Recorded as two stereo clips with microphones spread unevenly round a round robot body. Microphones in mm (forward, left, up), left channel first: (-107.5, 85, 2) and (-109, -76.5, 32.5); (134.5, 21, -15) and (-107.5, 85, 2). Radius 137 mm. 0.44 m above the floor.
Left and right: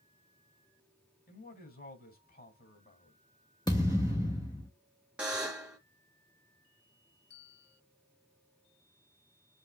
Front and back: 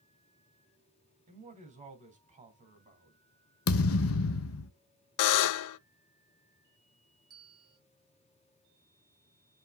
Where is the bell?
90° left, 3 m.